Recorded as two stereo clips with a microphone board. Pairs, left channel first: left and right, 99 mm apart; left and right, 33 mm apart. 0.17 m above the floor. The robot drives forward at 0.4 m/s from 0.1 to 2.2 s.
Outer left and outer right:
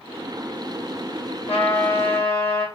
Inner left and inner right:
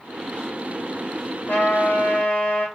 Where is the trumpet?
75° left (ahead or behind), 3.5 m; by 2.7 s 70° left (ahead or behind), 3.5 m.